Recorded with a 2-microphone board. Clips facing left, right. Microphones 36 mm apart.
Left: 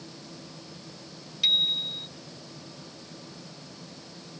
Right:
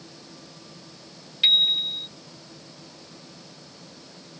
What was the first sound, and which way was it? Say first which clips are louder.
A bicycle bell: right 5 dB; 30° right (ahead or behind).